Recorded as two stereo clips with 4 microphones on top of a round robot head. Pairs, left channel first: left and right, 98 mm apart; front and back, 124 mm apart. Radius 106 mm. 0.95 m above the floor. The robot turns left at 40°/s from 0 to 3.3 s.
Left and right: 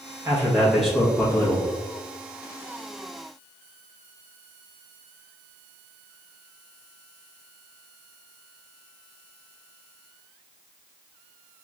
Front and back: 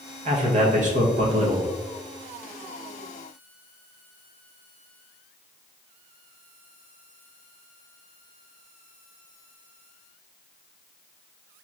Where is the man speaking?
155° right, 1.1 m; by 1.7 s 150° left, 1.1 m.